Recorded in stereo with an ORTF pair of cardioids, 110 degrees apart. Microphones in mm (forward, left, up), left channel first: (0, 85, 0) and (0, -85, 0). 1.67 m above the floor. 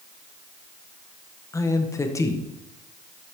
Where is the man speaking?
20° left, 1.4 m.